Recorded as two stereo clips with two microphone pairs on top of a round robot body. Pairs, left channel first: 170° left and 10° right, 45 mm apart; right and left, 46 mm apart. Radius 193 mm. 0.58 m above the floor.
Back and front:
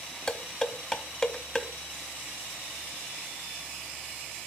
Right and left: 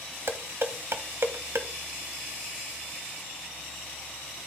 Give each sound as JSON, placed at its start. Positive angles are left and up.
{"t": 0.3, "sound": "dishes clattering", "azimuth_deg": 90, "distance_m": 1.0}